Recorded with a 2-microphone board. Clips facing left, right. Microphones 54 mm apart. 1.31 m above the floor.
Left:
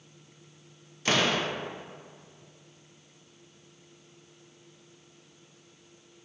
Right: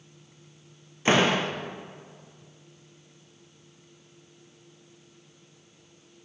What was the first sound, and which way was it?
A door slam, 25° right (ahead or behind).